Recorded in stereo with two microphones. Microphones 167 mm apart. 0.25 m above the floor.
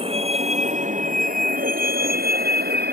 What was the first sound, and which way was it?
A vehicle, 35° right (ahead or behind).